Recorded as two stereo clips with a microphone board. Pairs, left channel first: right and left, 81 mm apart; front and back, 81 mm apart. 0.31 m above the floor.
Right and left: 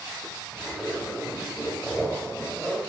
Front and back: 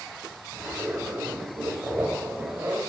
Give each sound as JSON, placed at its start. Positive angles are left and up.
{"t": 0.5, "sound": "a zipper", "azimuth_deg": -160, "distance_m": 1.4}